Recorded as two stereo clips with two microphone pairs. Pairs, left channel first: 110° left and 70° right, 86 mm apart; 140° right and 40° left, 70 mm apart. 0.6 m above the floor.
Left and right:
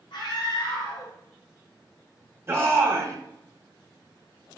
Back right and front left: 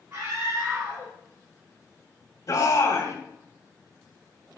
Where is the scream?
80° left, 4.5 m.